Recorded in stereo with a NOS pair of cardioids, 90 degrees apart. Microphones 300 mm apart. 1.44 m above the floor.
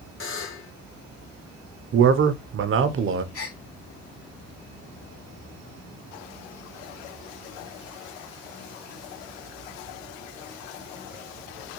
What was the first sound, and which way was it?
A buzzer, 45° left.